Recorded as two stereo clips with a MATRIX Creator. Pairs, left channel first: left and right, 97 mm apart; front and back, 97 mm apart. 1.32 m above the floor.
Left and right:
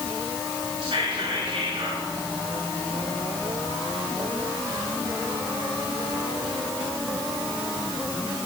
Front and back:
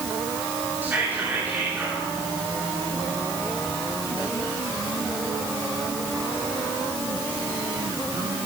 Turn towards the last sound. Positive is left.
turn(degrees=-110)